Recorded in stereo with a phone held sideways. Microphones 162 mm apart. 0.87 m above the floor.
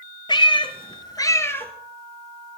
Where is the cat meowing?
30° left (ahead or behind), 1.3 m; by 1.7 s 10° left (ahead or behind), 1.5 m.